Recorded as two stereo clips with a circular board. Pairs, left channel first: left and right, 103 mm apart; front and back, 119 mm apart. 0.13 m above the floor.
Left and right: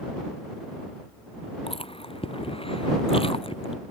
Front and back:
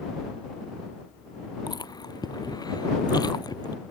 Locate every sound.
1.7 s chewing: 60° left